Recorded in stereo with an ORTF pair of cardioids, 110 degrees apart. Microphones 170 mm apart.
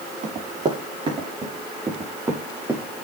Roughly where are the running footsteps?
Ahead right.